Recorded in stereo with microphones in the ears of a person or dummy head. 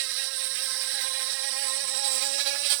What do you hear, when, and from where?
0.0 s an insect: 60° right (ahead or behind)